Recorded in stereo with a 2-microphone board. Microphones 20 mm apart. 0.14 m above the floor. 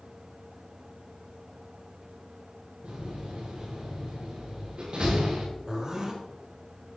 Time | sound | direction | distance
2.8 | a door slam | 80° right | 7.5 m
5.7 | a zipper | 40° right (ahead or behind) | 3 m